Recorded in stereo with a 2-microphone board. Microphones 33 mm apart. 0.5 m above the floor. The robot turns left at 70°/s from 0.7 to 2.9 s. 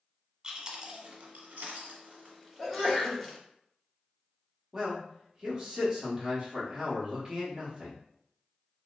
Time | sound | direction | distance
0.4 | chewing | 25° right (ahead or behind) | 0.7 m
2.6 | a sneeze | 15° right (ahead or behind) | 1.1 m
4.7 | a man speaking | 20° right (ahead or behind) | 0.9 m